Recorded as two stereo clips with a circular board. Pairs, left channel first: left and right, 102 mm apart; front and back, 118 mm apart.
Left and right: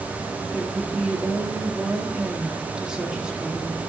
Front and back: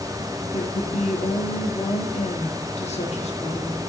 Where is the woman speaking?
10° right, 1.6 m.